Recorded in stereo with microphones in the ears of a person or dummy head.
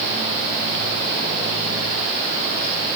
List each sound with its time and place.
Only background noise.